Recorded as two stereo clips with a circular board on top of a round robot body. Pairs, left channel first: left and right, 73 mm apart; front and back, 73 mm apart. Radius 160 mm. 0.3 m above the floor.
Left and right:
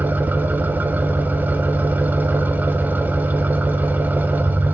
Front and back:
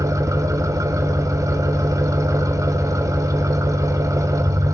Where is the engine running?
150° right, 0.9 m.